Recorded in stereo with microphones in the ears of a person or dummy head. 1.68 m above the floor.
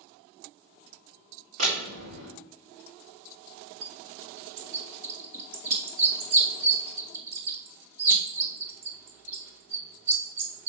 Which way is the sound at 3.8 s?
55° right (ahead or behind).